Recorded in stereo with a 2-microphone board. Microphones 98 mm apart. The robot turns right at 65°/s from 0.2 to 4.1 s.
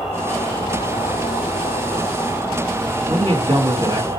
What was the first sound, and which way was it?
An insect, 5° left.